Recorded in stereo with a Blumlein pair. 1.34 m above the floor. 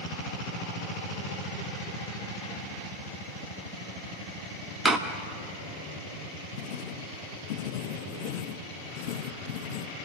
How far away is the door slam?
About 1.3 m.